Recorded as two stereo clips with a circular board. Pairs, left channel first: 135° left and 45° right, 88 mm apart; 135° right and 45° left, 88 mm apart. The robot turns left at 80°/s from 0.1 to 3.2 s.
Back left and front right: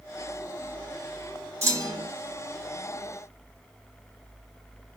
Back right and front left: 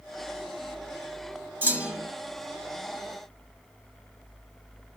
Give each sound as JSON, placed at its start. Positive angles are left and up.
{"t": 1.6, "sound": "a clunk", "azimuth_deg": -10, "distance_m": 1.8}